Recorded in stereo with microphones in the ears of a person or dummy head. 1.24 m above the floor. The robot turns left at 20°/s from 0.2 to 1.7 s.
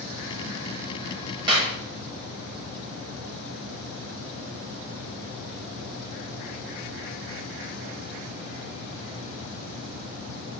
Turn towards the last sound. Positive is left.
turn(degrees=-25)  # may be behind; listen again after turning